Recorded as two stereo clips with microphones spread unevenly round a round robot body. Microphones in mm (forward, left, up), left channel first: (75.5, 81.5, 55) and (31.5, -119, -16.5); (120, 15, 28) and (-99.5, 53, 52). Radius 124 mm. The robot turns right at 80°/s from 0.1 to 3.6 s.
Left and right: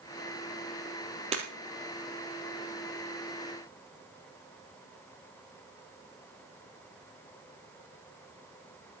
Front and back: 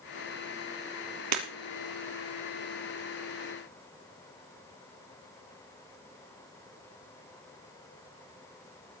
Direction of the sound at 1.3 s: 170° right.